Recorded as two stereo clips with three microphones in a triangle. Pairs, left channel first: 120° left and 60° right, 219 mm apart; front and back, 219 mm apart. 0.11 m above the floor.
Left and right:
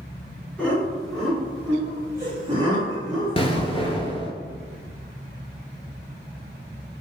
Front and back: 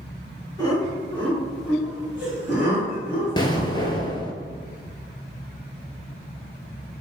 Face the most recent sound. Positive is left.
turn(degrees=60)